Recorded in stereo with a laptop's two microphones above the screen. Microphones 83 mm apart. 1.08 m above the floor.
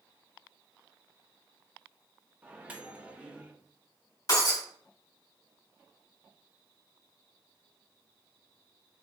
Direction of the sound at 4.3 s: 40° left (ahead or behind).